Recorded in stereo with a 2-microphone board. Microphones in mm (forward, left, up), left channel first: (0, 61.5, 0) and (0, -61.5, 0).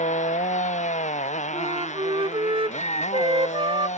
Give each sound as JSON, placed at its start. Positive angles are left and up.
{"t": 0.0, "sound": "a motorcycle", "side_deg": 75}
{"t": 1.5, "sound": "a flute", "side_deg": -45}